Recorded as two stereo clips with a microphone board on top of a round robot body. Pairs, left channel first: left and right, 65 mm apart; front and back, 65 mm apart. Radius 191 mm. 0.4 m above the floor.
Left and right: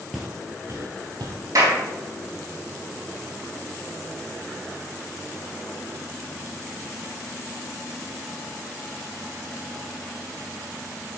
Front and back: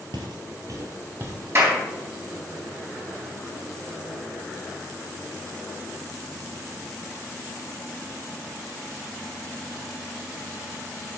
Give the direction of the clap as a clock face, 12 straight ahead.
4 o'clock.